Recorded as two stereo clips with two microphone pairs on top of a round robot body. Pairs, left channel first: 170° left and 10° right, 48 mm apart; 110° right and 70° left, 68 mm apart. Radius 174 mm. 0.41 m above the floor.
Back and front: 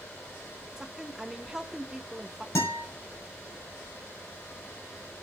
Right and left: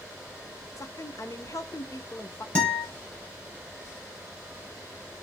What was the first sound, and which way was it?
A woman speaking, 80° right.